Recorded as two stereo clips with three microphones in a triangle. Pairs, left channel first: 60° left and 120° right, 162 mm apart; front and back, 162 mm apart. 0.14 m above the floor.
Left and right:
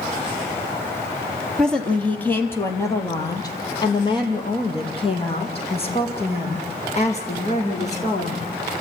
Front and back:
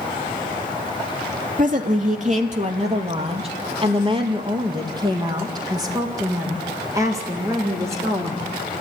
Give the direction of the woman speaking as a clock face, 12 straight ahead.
7 o'clock.